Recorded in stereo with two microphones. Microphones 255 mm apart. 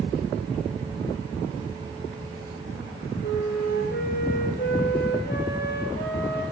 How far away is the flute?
About 9.5 m.